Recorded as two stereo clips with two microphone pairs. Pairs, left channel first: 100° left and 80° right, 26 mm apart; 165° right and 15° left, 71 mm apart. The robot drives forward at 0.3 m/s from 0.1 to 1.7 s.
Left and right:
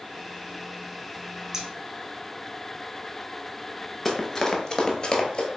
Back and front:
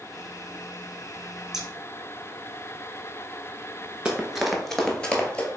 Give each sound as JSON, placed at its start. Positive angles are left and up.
{"t": 1.5, "sound": "scissors", "azimuth_deg": -50, "distance_m": 0.6}
{"t": 4.0, "sound": "running footsteps", "azimuth_deg": 50, "distance_m": 0.7}